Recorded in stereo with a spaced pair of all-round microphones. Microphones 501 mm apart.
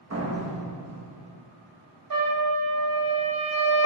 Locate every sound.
0.1 s a door slam: 30° right (ahead or behind), 1.0 m
2.1 s a trumpet: 45° right (ahead or behind), 0.7 m